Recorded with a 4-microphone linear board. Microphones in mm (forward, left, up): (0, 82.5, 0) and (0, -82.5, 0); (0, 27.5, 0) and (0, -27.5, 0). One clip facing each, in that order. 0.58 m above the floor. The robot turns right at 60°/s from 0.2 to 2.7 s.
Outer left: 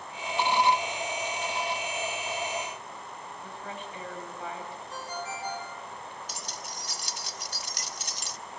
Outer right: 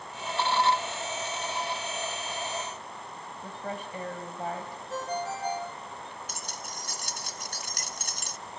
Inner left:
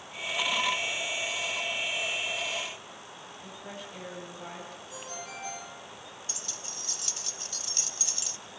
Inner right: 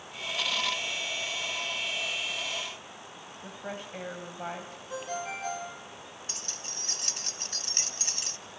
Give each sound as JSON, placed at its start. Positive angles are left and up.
{"t": 3.4, "sound": "a woman speaking", "side_deg": -40, "distance_m": 3.0}
{"t": 4.9, "sound": "a ringtone", "side_deg": -45, "distance_m": 6.0}
{"t": 6.3, "sound": "keys jangling", "side_deg": -50, "distance_m": 0.7}